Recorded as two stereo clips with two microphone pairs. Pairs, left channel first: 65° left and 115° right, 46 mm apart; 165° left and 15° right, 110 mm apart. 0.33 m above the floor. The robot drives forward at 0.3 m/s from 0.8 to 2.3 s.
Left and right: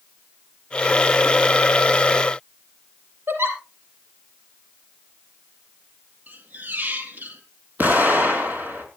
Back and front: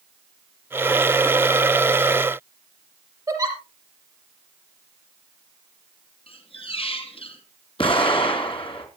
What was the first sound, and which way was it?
A giggle, 75° right.